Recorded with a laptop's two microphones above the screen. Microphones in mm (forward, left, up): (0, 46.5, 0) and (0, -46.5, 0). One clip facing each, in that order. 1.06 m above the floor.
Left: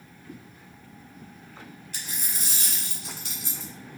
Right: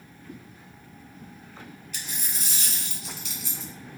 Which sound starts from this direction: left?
A dropped coin, at 1.9 s.